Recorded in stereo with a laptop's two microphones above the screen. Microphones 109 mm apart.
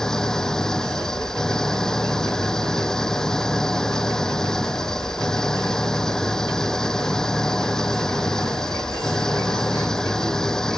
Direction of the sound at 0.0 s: 5° left (ahead or behind).